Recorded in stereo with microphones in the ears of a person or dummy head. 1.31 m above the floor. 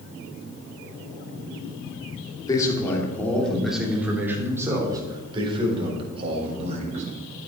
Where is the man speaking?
20° left (ahead or behind), 3 m; by 7.0 s 40° right (ahead or behind), 4.5 m.